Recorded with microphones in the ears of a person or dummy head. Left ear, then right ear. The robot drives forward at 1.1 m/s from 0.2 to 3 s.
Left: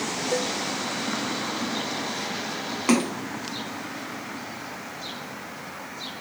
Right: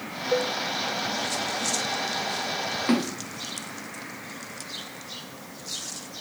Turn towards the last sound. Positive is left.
turn(degrees=35)  # may be behind; listen again after turning